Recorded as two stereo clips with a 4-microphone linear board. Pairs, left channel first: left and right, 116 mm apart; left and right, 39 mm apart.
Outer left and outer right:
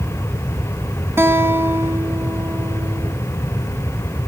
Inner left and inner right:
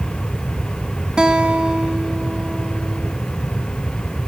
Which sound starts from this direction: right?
A guitar, at 1.2 s.